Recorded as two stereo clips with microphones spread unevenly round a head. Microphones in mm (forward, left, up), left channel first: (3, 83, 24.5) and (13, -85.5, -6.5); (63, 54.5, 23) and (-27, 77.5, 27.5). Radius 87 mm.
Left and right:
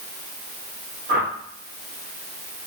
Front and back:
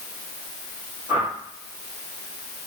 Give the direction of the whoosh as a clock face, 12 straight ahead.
4 o'clock.